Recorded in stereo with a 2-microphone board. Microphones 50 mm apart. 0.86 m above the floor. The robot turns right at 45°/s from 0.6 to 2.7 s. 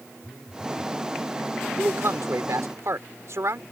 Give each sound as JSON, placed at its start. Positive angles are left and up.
{"t": 0.2, "sound": "a phone buzzing", "side_deg": -15}
{"t": 1.8, "sound": "a man speaking", "azimuth_deg": -120}